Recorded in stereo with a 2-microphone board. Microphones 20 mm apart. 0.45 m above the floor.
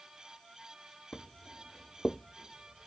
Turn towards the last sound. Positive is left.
turn(degrees=-25)  # may be behind; listen again after turning